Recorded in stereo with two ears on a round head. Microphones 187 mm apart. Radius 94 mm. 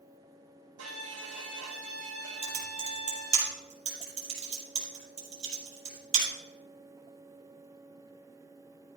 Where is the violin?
80° right, 4.5 m.